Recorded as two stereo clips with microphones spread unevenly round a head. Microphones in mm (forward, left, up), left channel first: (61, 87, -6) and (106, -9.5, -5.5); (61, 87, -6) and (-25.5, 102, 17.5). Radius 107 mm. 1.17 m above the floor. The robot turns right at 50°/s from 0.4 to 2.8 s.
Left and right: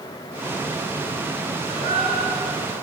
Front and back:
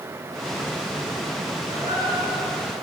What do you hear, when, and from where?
1.7 s a gasp: 70° right, 4.5 m; by 2.6 s 20° right, 4.5 m